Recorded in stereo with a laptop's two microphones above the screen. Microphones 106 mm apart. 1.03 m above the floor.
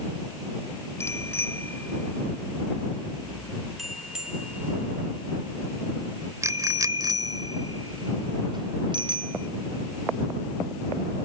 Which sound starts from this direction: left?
A bicycle bell, at 1.0 s.